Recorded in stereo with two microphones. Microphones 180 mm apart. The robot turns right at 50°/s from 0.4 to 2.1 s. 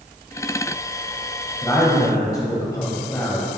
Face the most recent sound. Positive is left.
turn(degrees=20)  # may be behind; listen again after turning